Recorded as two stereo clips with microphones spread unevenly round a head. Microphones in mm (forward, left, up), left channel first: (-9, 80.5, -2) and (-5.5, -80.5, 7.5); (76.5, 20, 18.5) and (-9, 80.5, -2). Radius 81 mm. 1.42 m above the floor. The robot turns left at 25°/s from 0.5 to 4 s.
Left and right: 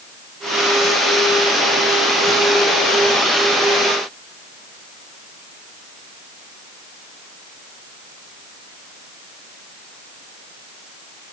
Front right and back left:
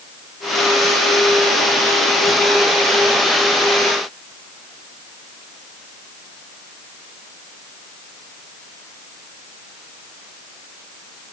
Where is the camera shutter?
I don't hear a camera shutter.